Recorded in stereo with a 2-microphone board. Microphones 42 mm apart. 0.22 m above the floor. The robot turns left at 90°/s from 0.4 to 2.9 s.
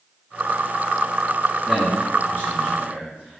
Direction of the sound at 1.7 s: 15° right (ahead or behind).